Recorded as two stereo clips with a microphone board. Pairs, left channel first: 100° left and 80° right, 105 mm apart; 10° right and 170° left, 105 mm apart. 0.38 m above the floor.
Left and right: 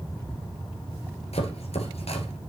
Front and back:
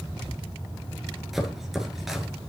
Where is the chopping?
80° left, 1.4 m.